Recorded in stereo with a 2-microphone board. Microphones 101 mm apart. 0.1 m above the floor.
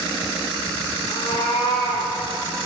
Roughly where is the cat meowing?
Left.